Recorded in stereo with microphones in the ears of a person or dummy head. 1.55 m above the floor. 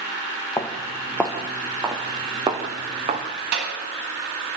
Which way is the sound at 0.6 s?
20° left (ahead or behind).